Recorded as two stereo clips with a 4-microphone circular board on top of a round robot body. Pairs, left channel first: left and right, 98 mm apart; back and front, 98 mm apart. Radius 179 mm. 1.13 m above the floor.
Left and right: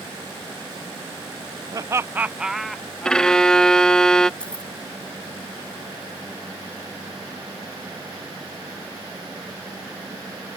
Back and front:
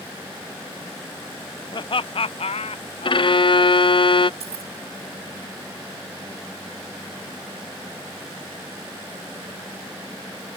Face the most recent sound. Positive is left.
turn(degrees=10)